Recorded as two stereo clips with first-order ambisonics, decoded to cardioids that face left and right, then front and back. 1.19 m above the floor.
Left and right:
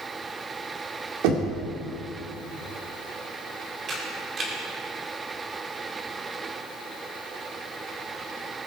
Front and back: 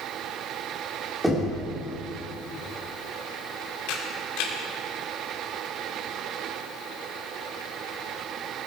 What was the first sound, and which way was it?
Knocking, 95° right.